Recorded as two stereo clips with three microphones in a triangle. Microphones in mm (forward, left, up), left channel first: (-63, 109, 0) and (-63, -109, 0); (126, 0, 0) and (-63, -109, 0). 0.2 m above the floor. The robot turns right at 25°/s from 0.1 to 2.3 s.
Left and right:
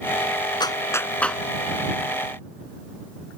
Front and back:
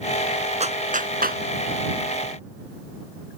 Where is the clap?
160° left; by 1.4 s straight behind.